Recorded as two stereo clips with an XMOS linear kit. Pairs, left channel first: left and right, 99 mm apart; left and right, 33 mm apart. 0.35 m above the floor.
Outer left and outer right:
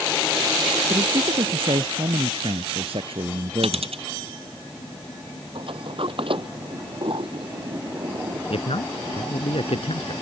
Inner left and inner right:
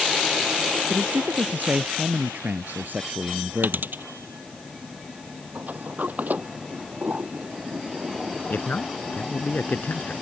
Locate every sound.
0.9 s a man speaking: 70° right (ahead or behind)
3.6 s a dropped coin: 85° right
5.5 s a sliding door: 60° right (ahead or behind)
8.5 s a man speaking: 75° left (ahead or behind)